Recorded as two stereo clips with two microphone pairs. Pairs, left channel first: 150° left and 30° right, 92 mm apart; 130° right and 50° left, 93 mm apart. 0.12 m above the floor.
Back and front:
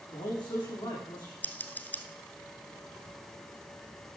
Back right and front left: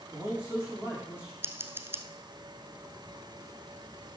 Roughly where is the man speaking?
Behind left.